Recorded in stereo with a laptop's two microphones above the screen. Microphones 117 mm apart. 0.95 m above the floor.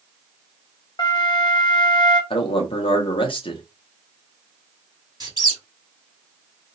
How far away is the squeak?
About 1.0 m.